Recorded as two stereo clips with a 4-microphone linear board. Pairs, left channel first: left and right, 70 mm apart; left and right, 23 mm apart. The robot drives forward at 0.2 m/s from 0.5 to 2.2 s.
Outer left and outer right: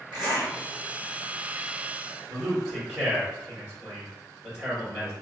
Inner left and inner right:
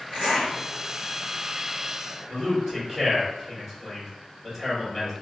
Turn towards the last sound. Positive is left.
turn(degrees=-15)  # may be behind; listen again after turning